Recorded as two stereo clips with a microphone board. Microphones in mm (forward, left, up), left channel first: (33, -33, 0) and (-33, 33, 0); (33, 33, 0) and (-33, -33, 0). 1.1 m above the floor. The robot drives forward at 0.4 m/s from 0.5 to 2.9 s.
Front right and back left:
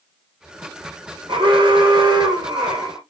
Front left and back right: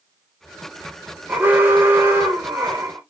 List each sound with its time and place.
1.3 s an alarm: 155° left, 0.8 m; by 3.0 s 165° left, 1.4 m